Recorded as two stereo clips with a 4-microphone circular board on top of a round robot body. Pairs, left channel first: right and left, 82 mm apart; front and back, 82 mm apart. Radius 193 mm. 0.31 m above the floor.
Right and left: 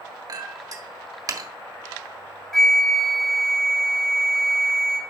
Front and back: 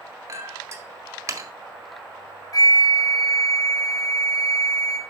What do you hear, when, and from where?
0.3 s a clink: 130° left, 1.8 m
2.5 s a flute: 10° right, 1.8 m